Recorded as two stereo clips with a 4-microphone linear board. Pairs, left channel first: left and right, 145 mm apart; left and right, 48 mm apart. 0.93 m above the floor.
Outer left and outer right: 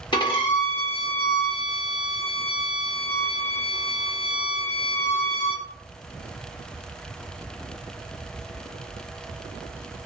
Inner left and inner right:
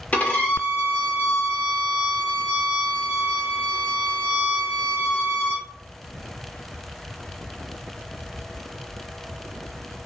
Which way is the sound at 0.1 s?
35° left (ahead or behind).